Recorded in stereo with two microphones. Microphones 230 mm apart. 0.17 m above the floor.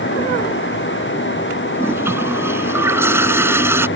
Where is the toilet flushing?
10° right (ahead or behind).